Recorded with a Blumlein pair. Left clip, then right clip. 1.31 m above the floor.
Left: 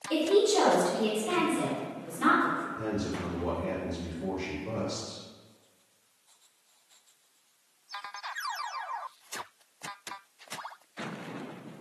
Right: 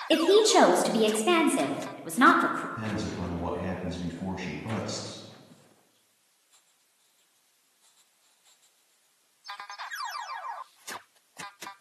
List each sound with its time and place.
0.1 s a woman speaking: 40° right, 0.5 m
2.8 s a man speaking: 35° right, 0.9 m